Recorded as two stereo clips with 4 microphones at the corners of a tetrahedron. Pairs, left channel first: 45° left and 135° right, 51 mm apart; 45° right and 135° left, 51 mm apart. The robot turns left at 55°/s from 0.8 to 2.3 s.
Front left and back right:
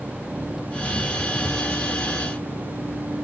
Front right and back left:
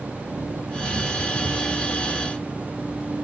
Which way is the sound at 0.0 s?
140° left.